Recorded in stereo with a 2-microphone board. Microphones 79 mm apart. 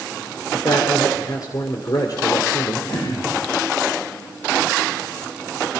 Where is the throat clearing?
50° left (ahead or behind), 8.5 m.